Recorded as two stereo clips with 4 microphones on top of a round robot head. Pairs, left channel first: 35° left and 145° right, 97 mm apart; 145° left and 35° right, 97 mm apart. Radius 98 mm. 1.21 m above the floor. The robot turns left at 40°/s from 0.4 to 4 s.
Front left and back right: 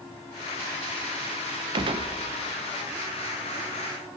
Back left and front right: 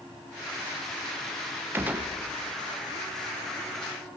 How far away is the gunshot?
About 0.8 m.